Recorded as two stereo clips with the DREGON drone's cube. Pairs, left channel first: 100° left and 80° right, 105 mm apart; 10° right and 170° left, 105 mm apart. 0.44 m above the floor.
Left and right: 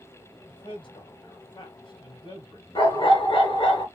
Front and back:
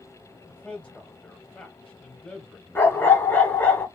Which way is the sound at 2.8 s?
60° left.